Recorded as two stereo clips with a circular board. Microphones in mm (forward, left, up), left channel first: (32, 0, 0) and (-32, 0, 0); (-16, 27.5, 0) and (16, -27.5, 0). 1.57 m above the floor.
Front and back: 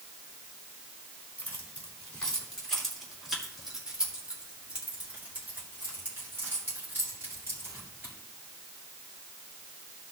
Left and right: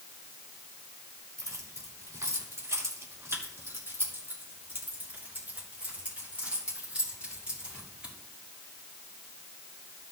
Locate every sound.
1.4 s keys jangling: 60° right, 3 m; by 8.1 s 130° right, 6 m